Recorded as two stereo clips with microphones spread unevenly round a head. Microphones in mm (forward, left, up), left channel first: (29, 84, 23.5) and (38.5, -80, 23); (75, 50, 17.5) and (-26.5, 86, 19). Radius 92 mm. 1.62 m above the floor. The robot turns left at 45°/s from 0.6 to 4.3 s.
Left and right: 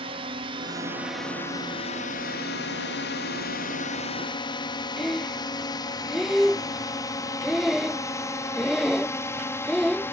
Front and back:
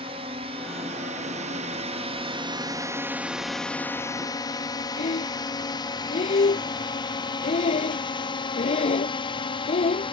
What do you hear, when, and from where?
0.0 s a drone: 150° right; by 10.1 s 15° left
5.0 s breathing: straight ahead